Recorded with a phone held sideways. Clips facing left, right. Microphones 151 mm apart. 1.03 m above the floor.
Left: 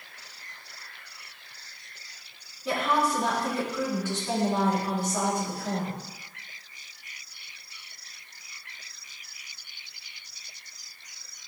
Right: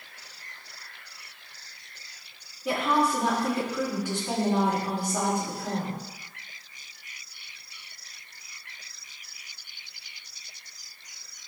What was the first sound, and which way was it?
A woman speaking, 15° right (ahead or behind).